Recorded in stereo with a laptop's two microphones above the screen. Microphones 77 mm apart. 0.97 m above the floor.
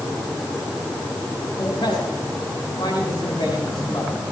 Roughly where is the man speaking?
Left.